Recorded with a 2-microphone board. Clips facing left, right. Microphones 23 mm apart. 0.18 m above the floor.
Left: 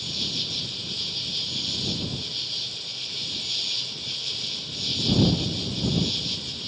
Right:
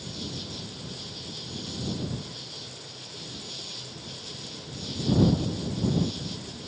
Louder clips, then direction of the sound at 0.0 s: Left 9 dB; 50° left (ahead or behind).